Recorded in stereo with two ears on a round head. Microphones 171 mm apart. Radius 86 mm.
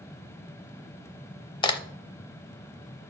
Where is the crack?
25° left (ahead or behind), 0.6 m.